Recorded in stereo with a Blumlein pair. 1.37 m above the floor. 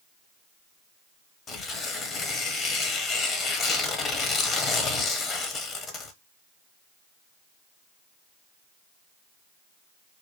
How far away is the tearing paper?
About 1.1 m.